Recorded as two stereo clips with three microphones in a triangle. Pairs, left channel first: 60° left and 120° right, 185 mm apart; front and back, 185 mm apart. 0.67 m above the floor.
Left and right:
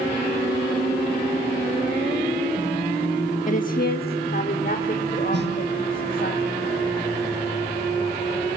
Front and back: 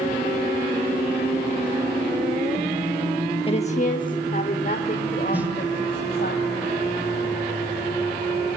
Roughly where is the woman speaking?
Ahead left.